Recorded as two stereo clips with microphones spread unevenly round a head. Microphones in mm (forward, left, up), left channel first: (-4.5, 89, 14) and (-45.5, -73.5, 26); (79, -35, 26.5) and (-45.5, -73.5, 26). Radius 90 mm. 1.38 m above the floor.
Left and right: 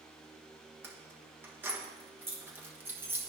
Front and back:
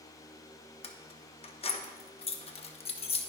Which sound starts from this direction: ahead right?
Keys jangling, at 0.8 s.